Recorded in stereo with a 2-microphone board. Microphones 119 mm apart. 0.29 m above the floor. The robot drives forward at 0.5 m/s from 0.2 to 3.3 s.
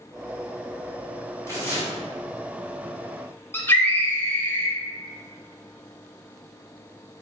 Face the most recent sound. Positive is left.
turn(degrees=15)  # may be behind; listen again after turning